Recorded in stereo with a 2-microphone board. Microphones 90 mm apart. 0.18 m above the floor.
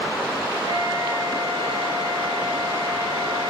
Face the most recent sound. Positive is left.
turn(degrees=-85)